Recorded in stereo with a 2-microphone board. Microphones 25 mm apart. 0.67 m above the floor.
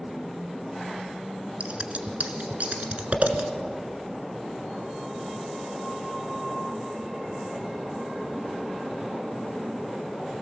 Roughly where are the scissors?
Right.